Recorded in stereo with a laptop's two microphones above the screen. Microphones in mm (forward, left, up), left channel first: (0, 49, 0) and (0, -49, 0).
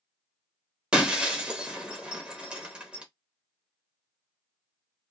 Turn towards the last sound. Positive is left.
turn(degrees=-10)  # may be behind; listen again after turning